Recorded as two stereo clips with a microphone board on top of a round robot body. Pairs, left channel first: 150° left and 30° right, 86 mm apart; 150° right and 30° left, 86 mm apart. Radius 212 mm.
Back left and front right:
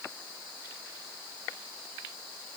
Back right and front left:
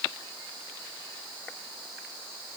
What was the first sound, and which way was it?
Only background noise.